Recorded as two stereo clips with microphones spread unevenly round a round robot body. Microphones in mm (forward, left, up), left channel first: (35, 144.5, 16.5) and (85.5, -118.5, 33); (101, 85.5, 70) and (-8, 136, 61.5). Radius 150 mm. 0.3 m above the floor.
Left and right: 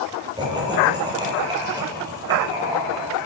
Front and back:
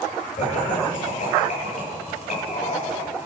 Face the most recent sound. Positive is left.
turn(degrees=0)